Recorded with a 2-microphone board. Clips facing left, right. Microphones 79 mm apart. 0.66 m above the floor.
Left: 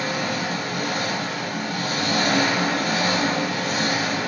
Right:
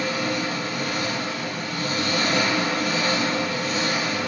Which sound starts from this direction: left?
An engine running, at 0.0 s.